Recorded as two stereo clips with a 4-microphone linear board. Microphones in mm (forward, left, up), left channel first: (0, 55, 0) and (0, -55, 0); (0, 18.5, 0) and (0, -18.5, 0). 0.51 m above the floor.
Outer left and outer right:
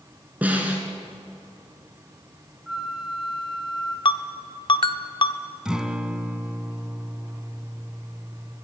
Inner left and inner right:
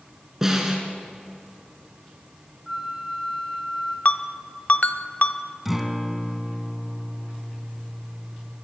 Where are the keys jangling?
I don't hear keys jangling.